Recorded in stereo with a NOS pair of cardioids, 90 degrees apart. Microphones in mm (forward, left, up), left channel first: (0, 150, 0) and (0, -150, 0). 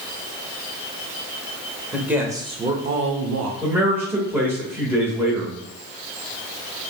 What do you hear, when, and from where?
1.9 s a man speaking: straight ahead, 1.6 m; by 3.5 s 70° right, 0.9 m
3.6 s a man speaking: 5° right, 1.7 m